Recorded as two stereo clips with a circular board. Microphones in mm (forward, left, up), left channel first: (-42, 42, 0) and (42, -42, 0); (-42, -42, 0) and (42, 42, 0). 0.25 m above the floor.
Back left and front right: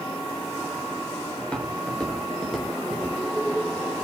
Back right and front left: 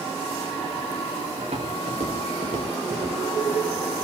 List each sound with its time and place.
1.4 s footsteps: 55° left, 7.5 m; by 3.2 s 50° left, 7 m